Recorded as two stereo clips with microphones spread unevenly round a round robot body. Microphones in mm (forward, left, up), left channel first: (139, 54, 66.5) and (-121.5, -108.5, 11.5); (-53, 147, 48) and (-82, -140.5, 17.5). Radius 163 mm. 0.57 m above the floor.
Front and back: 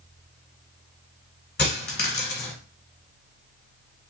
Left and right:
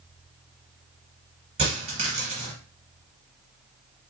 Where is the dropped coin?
20° right, 1.5 m.